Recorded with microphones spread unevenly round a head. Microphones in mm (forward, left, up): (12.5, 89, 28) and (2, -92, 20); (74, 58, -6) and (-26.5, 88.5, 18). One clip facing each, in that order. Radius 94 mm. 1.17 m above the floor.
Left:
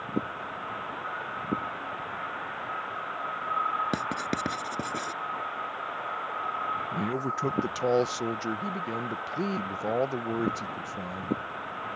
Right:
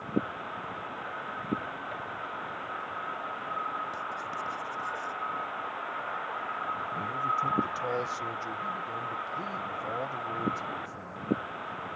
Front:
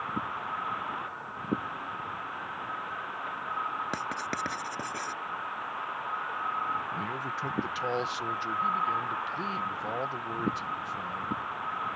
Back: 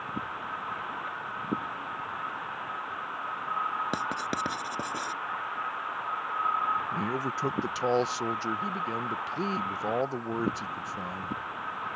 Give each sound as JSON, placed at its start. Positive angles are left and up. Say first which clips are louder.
{"t": 3.9, "sound": "writing", "louder": "left 8 dB, back 2 dB", "azimuth_deg": 95}
{"t": 6.9, "sound": "a man speaking", "louder": "left 11 dB, back 4 dB", "azimuth_deg": 105}